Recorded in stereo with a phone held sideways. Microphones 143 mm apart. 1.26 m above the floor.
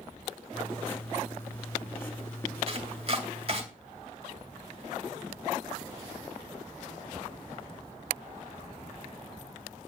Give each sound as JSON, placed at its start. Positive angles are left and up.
{"t": 0.5, "sound": "writing", "side_deg": 15, "distance_m": 2.5}
{"t": 2.7, "sound": "chopping", "side_deg": -45, "distance_m": 2.5}